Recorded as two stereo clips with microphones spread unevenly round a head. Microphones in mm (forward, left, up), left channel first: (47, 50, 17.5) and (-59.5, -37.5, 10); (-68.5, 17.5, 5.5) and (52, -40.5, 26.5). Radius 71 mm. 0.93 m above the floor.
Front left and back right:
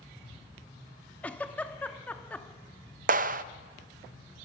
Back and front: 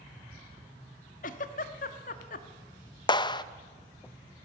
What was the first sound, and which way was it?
A giggle, 120° left.